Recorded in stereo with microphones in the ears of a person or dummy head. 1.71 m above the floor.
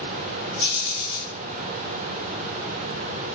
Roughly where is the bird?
Left.